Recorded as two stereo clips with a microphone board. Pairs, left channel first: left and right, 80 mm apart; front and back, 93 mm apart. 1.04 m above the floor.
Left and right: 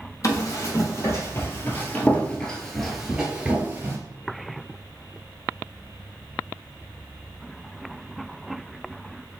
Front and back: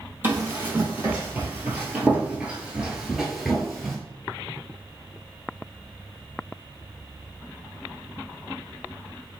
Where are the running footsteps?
120° left, 1.7 m; by 4.0 s 80° right, 1.1 m.